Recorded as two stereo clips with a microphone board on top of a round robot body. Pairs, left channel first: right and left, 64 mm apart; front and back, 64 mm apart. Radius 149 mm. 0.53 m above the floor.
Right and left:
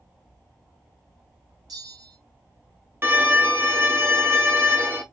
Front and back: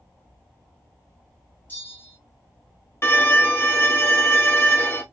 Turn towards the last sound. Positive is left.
turn(degrees=45)